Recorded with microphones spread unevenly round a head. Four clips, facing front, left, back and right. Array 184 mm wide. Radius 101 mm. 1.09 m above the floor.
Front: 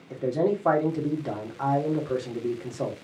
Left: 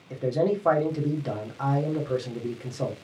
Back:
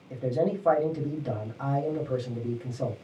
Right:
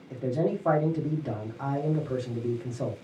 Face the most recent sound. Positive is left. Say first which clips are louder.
# left 3 dB, front 3 dB
turn(degrees=25)